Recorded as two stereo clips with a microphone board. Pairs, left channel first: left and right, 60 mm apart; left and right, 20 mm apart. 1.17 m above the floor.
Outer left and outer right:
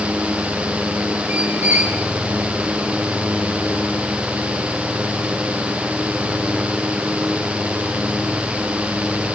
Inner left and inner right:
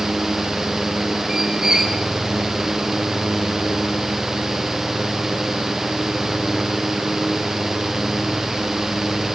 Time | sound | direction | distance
1.3 | a squeak | 30° right (ahead or behind) | 7 m